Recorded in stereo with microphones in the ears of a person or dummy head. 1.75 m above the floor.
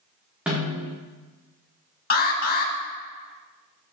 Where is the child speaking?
No child speaking in this recording.